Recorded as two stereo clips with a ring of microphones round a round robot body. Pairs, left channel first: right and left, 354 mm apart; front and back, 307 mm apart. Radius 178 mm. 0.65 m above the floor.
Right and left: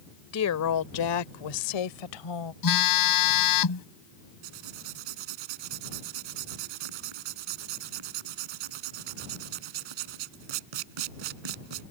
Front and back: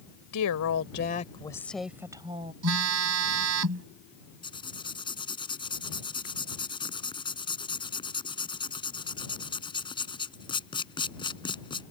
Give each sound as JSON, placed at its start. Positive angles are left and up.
{"t": 0.3, "sound": "a woman speaking", "azimuth_deg": -40}
{"t": 2.6, "sound": "a phone buzzing", "azimuth_deg": -130}
{"t": 4.4, "sound": "writing", "azimuth_deg": 75}